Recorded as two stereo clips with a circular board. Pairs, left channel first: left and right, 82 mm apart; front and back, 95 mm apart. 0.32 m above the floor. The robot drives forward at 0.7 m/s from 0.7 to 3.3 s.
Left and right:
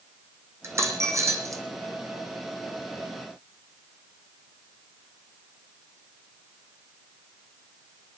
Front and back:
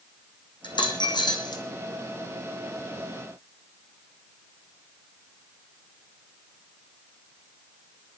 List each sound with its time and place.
0.6 s a dropped coin: 35° right, 4.5 m; by 1.6 s 40° right, 4 m